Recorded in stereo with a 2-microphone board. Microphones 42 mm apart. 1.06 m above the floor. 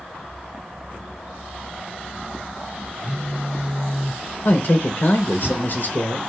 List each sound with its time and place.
3.0 s a phone buzzing: 60° left (ahead or behind), 2.0 m
4.5 s a man speaking: 60° left (ahead or behind), 0.9 m